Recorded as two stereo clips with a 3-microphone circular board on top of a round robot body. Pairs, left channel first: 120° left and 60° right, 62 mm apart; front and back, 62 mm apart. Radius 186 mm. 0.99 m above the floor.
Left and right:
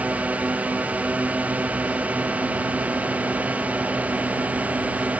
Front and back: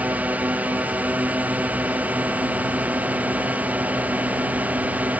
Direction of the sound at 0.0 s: 120° right.